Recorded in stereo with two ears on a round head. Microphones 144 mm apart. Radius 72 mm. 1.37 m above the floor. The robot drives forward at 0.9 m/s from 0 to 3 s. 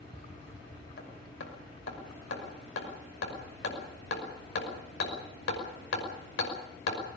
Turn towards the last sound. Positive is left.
turn(degrees=85)